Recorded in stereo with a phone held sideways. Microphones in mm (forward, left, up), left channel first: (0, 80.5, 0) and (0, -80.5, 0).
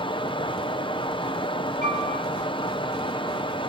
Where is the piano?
90° left, 8.5 m.